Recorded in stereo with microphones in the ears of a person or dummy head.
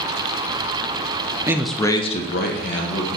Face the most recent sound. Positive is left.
turn(degrees=65)  # may be behind; listen again after turning